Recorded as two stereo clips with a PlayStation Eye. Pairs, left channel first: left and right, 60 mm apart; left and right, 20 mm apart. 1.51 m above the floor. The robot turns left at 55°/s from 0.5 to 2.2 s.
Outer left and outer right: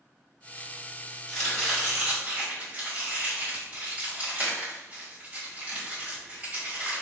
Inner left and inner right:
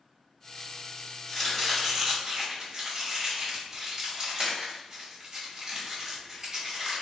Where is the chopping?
25° left (ahead or behind), 2.0 m; by 7.0 s 20° right (ahead or behind), 2.0 m.